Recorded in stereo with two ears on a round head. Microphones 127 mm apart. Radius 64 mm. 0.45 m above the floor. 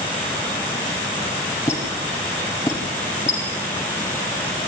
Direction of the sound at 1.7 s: 20° left (ahead or behind).